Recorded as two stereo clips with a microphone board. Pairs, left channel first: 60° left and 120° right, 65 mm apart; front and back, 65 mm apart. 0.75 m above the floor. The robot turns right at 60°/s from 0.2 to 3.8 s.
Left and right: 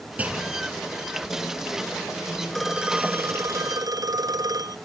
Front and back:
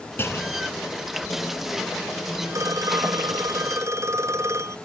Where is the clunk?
55° right; by 0.9 s 10° right.